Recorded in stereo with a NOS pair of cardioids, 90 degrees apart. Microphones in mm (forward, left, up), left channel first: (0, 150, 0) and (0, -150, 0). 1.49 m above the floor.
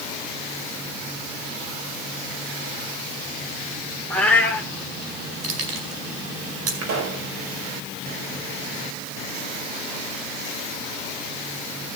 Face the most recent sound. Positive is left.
turn(degrees=-65)